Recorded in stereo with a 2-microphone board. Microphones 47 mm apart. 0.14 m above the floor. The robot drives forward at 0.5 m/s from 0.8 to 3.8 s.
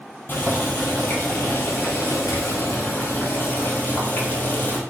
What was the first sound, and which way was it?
Boiling, 45° left (ahead or behind).